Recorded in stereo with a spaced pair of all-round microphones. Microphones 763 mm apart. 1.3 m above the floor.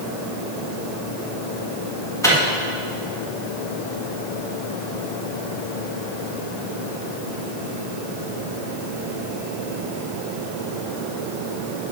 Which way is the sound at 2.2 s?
5° left (ahead or behind).